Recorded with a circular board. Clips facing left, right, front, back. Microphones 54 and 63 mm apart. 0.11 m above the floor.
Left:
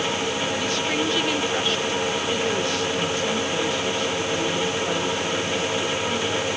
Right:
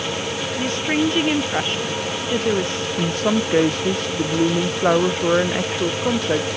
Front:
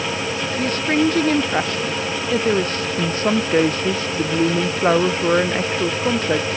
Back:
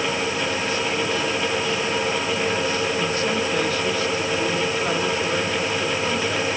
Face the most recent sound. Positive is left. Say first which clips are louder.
# right 4 dB, front 3 dB
turn(degrees=-50)